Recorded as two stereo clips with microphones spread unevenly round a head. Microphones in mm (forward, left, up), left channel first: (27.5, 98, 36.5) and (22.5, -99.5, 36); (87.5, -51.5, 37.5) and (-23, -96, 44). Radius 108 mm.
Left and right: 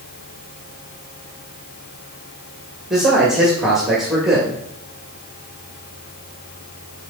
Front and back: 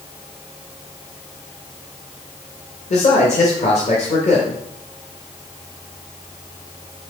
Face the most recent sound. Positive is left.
turn(degrees=-5)